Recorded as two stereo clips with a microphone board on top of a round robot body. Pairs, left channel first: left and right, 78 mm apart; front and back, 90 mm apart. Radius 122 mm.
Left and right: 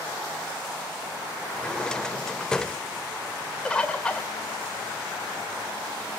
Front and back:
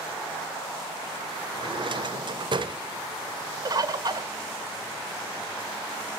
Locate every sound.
1.5 s a drawer: 170° left, 0.8 m
3.6 s a bird: 165° left, 1.6 m